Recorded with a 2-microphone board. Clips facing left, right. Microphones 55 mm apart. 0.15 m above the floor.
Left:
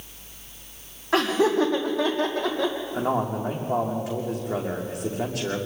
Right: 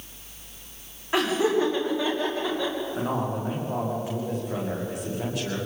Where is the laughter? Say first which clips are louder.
Left 2 dB; 75° left (ahead or behind), 6.5 m; by 2.8 s 80° left, 5 m.